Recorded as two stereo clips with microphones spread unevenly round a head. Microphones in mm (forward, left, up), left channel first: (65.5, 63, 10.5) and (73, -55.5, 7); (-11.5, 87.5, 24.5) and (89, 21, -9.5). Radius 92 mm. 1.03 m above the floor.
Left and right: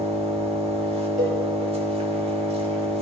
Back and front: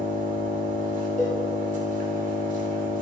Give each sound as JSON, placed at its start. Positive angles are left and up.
{"t": 0.0, "sound": "an engine running", "azimuth_deg": -55, "distance_m": 3.0}
{"t": 1.2, "sound": "a cowbell", "azimuth_deg": -125, "distance_m": 5.0}